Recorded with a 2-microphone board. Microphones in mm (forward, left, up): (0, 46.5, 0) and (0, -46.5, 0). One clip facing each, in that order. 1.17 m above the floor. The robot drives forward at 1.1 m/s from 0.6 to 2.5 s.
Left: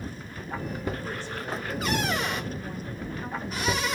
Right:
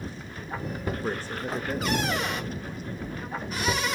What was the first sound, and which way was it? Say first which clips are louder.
A man speaking: right 3 dB; 45° right (ahead or behind).